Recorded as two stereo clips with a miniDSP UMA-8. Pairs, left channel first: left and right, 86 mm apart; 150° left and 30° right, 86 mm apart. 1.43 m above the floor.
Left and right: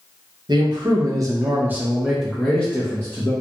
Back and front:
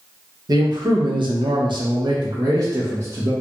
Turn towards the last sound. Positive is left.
turn(degrees=25)